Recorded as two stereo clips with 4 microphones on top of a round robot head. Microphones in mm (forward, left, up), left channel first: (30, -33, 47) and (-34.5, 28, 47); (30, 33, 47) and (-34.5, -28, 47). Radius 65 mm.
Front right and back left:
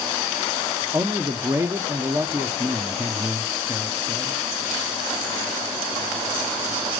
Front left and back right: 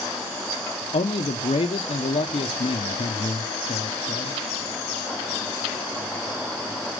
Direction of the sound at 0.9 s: 75° left.